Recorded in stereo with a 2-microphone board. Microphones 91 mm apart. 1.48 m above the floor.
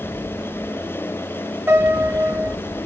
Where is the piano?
25° right (ahead or behind), 2.5 m.